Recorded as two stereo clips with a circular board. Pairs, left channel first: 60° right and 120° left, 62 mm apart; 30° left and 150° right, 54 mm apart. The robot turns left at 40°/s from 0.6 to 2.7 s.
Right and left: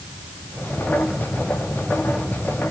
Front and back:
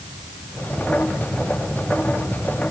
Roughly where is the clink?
No clink in this recording.